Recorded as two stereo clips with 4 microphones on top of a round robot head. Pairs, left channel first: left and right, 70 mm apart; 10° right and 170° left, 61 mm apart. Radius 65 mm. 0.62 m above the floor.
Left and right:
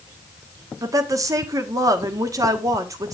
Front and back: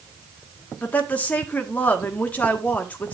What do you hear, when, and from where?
0.8 s a woman speaking: 70° right, 1.3 m